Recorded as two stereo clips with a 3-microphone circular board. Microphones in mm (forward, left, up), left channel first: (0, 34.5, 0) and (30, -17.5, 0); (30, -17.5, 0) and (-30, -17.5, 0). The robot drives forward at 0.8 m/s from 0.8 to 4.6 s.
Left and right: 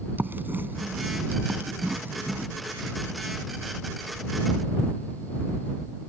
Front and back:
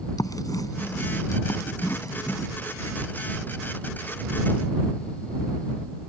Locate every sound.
0.2 s writing: straight ahead